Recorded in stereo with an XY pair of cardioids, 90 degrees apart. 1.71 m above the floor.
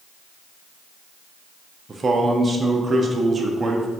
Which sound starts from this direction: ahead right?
A man speaking, at 1.9 s.